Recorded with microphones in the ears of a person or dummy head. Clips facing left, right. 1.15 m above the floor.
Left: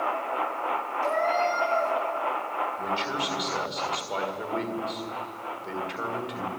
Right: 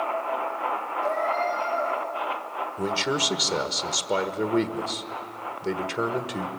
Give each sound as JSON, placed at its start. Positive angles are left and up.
{"t": 1.0, "sound": "a cat meowing", "side_deg": 70, "distance_m": 9.5}
{"t": 2.8, "sound": "a man speaking", "side_deg": -50, "distance_m": 1.6}